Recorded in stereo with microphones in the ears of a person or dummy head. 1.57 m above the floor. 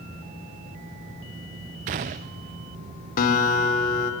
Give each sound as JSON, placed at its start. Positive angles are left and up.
{"t": 1.9, "sound": "a gunshot", "side_deg": -40, "distance_m": 0.5}
{"t": 3.2, "sound": "a guitar", "side_deg": 45, "distance_m": 3.5}